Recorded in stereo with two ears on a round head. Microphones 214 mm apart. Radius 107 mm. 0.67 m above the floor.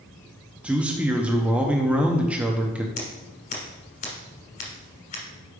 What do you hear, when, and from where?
0.6 s a man speaking: 5° right (ahead or behind), 0.7 m
3.0 s scissors: 35° left (ahead or behind), 2 m